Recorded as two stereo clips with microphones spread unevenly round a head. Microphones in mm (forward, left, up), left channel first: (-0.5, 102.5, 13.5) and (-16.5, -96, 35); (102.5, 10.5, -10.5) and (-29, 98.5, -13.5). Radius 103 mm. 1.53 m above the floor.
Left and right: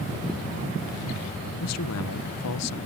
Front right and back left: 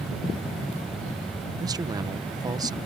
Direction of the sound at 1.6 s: 80° left.